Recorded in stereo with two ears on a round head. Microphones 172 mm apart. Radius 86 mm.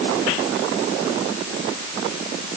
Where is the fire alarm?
No fire alarm in this recording.